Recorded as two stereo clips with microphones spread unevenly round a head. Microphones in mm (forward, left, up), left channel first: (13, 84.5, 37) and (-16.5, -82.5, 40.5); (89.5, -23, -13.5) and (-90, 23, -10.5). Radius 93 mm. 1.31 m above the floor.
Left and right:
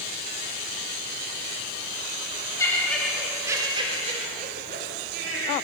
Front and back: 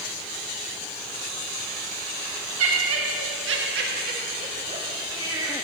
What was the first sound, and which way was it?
Laughter, 155° left.